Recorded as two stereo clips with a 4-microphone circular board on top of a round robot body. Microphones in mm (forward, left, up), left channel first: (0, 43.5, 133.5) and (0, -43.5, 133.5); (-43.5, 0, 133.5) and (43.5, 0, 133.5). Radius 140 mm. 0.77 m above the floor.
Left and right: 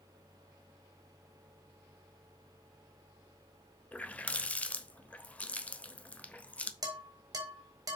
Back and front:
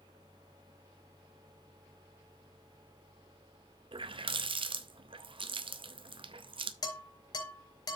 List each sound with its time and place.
3.9 s a running tap: 15° left, 0.8 m
6.8 s dishes clattering: 140° right, 3 m